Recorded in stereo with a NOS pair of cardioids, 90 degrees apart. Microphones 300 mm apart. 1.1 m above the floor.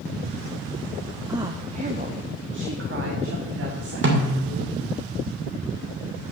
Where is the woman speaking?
10° right, 1.1 m; by 4.8 s 55° right, 3 m.